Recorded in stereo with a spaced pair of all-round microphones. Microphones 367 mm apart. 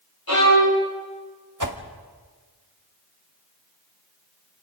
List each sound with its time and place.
0.3 s a violin: 70° left (ahead or behind), 7.5 m
1.6 s a whoosh: 55° right (ahead or behind), 1.7 m